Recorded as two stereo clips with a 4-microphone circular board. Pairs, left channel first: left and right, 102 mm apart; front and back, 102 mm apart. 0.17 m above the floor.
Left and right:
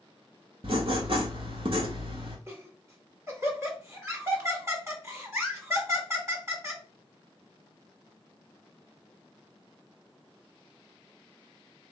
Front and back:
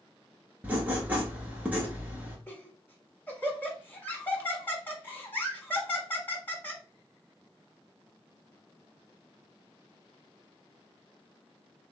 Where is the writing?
105° right, 1.2 m.